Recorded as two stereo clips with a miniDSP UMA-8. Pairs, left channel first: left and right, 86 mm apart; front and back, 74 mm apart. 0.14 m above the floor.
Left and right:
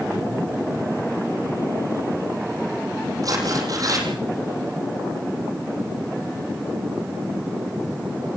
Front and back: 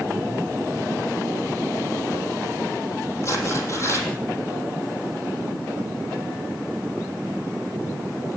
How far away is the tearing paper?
About 6 m.